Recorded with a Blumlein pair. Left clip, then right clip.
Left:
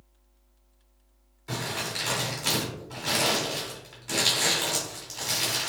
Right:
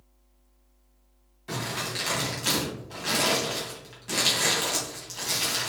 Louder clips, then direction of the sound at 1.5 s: Even; straight ahead.